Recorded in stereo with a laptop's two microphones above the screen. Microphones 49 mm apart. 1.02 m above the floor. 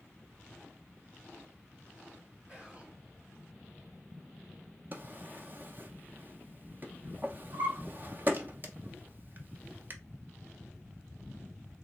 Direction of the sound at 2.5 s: 25° right (ahead or behind).